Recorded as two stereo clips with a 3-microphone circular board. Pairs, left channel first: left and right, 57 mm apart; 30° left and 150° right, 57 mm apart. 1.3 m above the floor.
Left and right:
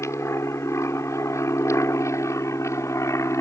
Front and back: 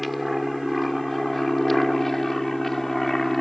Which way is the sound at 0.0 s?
120° left.